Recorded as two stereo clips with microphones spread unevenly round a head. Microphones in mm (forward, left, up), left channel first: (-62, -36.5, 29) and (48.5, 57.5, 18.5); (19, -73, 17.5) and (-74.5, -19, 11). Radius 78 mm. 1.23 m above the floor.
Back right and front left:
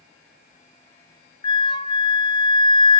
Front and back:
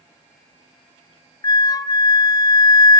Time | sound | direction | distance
1.4 | a flute | 80° right | 0.6 m